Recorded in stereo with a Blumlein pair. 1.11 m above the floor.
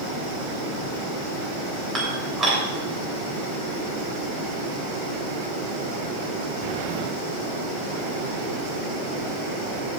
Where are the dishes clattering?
20° right, 3.5 m.